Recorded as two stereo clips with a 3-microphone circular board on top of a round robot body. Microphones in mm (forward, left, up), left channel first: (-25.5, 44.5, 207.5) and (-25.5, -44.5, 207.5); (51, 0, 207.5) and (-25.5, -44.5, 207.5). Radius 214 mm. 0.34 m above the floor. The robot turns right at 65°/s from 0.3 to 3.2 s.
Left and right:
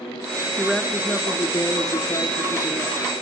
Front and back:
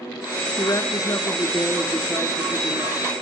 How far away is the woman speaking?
About 1.6 m.